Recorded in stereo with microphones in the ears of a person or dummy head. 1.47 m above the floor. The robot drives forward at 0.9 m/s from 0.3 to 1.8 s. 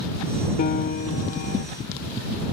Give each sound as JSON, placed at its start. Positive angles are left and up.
{"t": 0.6, "sound": "a piano", "side_deg": 45}